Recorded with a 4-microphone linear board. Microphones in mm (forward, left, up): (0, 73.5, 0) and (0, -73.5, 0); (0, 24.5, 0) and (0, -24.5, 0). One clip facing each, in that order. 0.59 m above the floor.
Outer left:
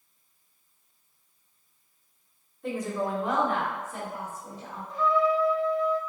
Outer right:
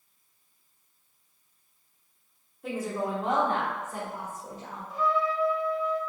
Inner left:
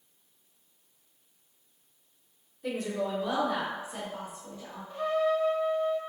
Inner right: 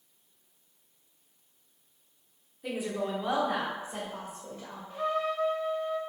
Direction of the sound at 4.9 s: 5° right (ahead or behind).